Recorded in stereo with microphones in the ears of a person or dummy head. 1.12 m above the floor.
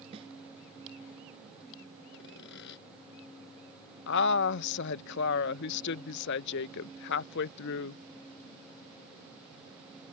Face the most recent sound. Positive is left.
turn(degrees=60)  # may be behind; listen again after turning